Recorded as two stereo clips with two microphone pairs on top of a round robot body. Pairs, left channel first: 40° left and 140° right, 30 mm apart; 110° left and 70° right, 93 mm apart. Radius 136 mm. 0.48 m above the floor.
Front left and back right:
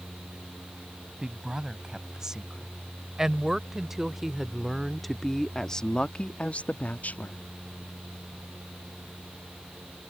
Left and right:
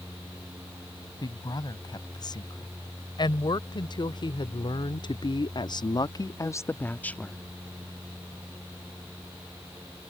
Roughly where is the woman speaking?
Behind left.